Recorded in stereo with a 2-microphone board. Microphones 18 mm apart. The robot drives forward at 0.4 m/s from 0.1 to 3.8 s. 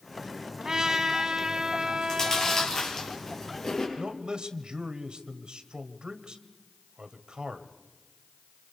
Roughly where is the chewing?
Left.